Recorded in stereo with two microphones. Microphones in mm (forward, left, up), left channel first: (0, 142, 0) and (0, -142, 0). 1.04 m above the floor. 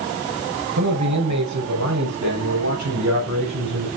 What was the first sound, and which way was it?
A man speaking, 80° right.